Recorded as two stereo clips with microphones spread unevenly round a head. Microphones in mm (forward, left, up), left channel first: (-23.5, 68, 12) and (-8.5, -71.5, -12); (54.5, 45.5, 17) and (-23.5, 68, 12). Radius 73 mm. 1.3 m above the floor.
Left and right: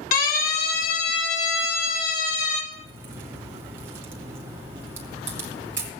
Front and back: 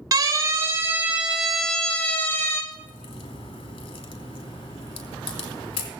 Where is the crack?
5° right, 2.5 m.